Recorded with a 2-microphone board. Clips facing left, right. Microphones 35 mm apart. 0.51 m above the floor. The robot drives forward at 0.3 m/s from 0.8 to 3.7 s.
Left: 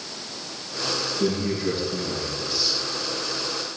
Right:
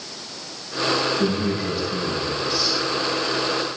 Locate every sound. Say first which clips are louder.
1.2 s a man speaking: right 2 dB; 65° right (ahead or behind), 6 m